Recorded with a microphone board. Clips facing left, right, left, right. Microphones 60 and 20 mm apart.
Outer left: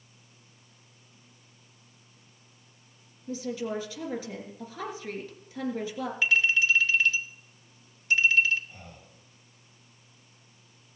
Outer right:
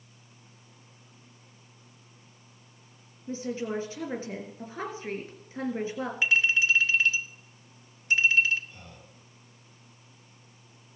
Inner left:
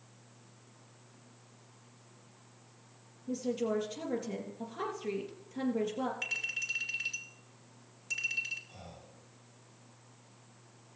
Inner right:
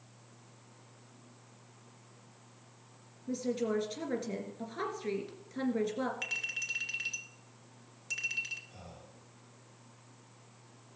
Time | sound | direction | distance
3.3 | a woman speaking | 30° right (ahead or behind) | 3 m
6.2 | a clink | 20° right (ahead or behind) | 2.5 m
8.7 | breathing | 10° left (ahead or behind) | 3.5 m